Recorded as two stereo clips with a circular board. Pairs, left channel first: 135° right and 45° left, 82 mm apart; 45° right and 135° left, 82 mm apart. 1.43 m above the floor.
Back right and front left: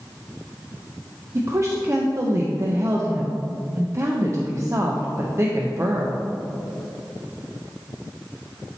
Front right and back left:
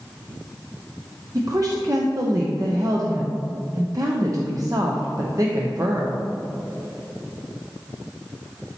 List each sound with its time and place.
1.4 s a woman speaking: 95° left, 0.7 m